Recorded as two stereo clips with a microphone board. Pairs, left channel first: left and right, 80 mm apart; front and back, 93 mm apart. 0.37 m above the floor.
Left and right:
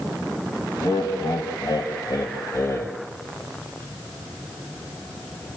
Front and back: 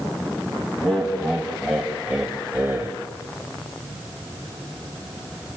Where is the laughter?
85° left, 3 m; by 2.9 s 130° left, 1.7 m.